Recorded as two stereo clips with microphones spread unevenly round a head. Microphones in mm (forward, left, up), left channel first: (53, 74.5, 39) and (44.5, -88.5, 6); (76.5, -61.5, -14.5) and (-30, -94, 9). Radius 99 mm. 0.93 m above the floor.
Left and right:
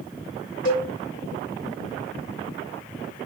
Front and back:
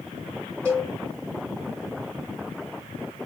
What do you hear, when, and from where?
0.7 s a cowbell: 105° left, 1.3 m